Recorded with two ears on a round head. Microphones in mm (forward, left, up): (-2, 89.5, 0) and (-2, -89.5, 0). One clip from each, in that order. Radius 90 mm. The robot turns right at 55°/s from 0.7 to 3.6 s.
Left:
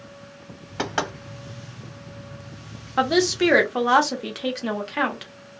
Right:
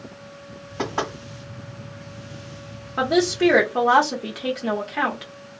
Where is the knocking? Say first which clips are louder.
Even; 40° left (ahead or behind), 1.5 m; by 1.1 s 55° left (ahead or behind), 1.5 m.